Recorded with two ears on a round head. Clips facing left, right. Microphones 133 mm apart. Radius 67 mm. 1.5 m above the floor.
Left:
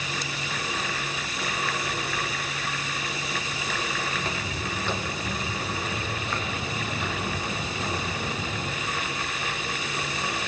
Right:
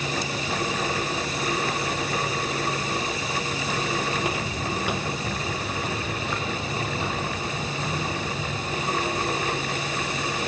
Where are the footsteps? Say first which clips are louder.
Right 4 dB; 15° right (ahead or behind), 2.5 m; by 8.9 s 5° right (ahead or behind), 5.5 m.